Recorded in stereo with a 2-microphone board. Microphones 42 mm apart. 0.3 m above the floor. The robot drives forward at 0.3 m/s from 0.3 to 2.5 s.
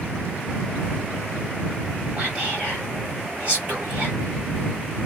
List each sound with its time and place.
2.2 s whispering: 25° right (ahead or behind), 1.2 m